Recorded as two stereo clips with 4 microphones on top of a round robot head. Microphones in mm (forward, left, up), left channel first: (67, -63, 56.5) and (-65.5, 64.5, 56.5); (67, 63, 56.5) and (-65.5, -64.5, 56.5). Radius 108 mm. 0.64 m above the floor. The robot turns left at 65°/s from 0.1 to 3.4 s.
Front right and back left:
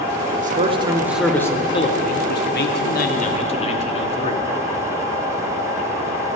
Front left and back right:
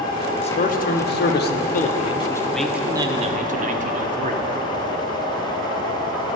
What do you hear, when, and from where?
0.4 s a man speaking: 100° left, 1.2 m; by 4.4 s 95° right, 1.2 m